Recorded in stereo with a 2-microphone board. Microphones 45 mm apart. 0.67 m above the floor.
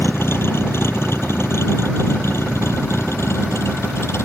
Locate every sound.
0.0 s a vehicle: 65° left (ahead or behind); by 4.2 s 85° left